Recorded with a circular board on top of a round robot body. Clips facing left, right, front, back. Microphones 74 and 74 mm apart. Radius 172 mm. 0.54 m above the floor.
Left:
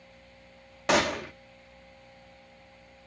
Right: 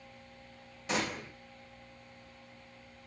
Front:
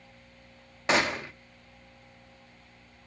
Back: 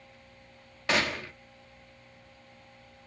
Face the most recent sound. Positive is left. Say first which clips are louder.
# left 9 dB, front 3 dB
turn(degrees=70)